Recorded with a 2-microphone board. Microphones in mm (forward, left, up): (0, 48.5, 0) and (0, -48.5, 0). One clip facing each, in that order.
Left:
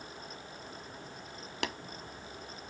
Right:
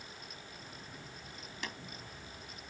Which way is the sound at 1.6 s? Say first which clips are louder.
Left 8 dB; 70° left (ahead or behind).